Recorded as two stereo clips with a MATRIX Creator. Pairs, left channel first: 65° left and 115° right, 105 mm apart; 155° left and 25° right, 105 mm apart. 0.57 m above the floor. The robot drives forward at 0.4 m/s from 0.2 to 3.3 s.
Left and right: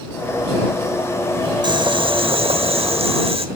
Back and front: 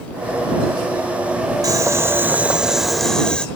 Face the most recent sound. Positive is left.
turn(degrees=-120)